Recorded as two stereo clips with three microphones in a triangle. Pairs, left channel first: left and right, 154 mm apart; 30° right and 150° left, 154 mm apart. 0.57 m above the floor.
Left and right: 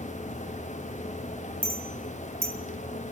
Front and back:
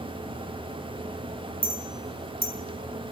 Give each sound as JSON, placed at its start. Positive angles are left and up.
{"t": 1.6, "sound": "a clink", "azimuth_deg": -80, "distance_m": 2.5}